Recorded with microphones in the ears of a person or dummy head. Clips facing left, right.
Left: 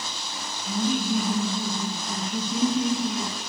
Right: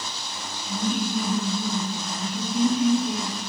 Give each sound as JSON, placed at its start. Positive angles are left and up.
{"t": 0.7, "sound": "laughter", "side_deg": 75, "distance_m": 1.0}